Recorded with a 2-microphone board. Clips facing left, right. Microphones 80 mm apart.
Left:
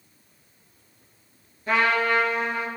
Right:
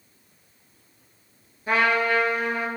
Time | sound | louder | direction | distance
1.7 | a trumpet | even | 10° right (ahead or behind) | 2.5 m